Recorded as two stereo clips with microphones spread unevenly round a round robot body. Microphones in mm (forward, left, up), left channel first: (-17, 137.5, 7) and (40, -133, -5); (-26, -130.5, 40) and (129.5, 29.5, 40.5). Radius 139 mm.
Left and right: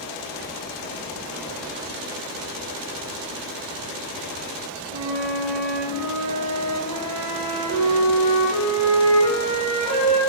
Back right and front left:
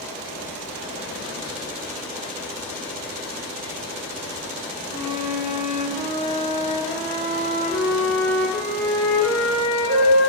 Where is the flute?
160° right, 1.4 m.